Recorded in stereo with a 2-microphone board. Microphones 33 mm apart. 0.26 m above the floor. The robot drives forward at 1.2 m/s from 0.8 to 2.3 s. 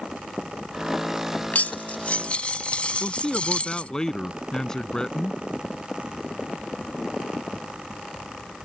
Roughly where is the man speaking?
Centre.